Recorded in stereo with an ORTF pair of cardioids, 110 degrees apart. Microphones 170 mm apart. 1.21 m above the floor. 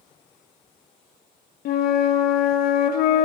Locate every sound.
1.6 s a flute: 65° left, 1.0 m